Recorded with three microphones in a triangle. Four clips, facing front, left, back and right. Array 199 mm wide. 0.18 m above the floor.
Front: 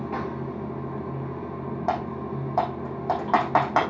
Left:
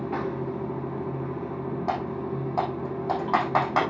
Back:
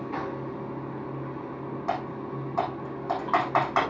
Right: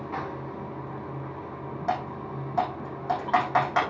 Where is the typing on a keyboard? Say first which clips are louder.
Right 1 dB, front 3 dB; 10° left, 4.5 m.